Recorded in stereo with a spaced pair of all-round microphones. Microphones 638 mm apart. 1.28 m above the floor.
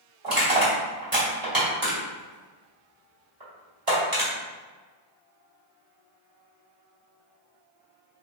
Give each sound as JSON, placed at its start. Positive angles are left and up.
{"t": 0.2, "sound": "crushing", "side_deg": -35, "distance_m": 1.5}